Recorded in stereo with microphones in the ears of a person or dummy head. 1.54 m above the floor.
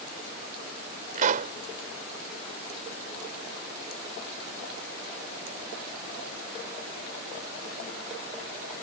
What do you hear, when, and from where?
1.1 s a pop: 50° right (ahead or behind)